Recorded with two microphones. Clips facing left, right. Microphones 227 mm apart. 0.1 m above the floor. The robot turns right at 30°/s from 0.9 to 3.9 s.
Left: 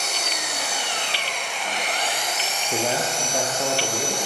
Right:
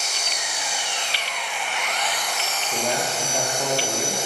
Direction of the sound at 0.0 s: 115° left.